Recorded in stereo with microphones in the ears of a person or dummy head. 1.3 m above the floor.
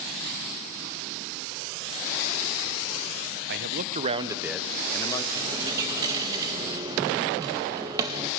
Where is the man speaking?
60° right (ahead or behind), 0.9 m; by 5.2 s 20° left (ahead or behind), 1.0 m.